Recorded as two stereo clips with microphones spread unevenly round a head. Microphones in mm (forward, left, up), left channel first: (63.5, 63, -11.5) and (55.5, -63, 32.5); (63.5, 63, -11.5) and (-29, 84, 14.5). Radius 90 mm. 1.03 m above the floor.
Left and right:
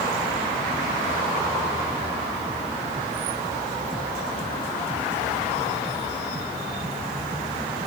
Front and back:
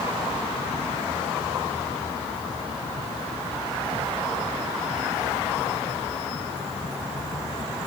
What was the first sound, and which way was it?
Only background noise.